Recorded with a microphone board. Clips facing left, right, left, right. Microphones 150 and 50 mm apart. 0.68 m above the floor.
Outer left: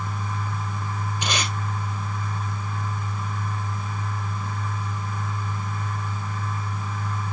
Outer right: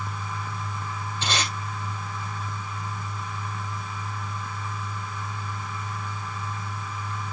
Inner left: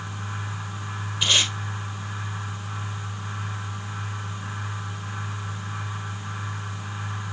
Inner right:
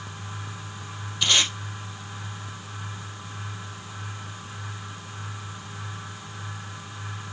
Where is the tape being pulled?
15° left (ahead or behind), 3.5 m.